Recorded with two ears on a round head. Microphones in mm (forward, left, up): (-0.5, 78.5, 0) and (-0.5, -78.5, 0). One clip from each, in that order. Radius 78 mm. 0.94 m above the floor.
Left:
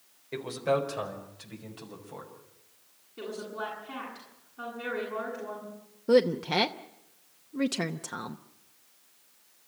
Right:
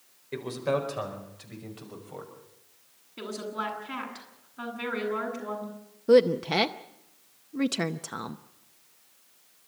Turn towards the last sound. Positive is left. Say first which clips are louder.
# right 3 dB
turn(degrees=-5)  # may be behind; listen again after turning